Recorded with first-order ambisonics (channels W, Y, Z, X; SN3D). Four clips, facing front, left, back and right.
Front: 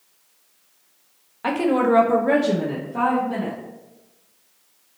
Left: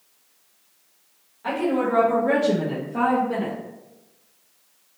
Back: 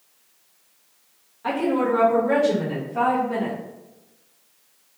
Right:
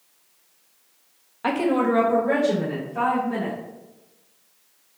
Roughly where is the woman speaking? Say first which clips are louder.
Right 2 dB, front 3 dB; ahead right.